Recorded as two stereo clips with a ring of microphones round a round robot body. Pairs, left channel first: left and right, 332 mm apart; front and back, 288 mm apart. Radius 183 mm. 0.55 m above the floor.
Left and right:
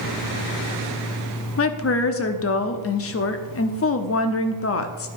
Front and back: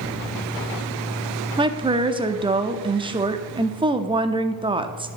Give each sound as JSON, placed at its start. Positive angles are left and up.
{"t": 1.6, "sound": "a woman speaking", "azimuth_deg": 115, "distance_m": 0.9}